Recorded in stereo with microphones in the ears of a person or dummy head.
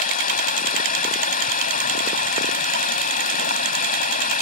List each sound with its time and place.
0.0 s running water: 45° left (ahead or behind)